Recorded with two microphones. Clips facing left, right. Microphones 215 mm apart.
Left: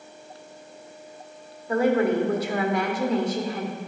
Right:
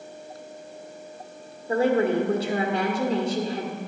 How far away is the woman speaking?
About 1.2 m.